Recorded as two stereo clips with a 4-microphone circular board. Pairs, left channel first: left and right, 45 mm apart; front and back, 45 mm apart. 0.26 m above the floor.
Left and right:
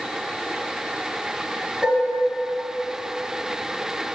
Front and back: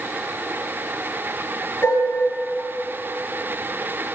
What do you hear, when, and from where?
1.8 s dishes clattering: 20° right, 2.5 m